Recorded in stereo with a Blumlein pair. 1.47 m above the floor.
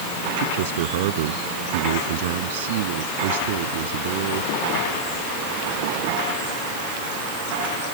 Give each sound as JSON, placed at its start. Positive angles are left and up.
{"t": 0.4, "sound": "a man speaking", "azimuth_deg": -55}